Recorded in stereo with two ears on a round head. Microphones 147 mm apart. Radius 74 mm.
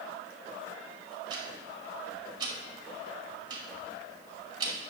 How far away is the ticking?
About 1.9 m.